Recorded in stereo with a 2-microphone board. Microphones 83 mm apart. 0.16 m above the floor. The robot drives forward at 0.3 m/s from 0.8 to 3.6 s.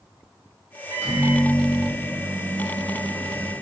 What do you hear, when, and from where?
0.9 s a microwave: 30° right (ahead or behind), 1.1 m